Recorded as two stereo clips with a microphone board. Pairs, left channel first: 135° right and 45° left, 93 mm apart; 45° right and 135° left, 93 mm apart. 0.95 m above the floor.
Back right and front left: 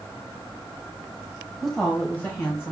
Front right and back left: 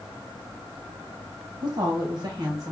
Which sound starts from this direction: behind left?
A woman speaking, at 1.6 s.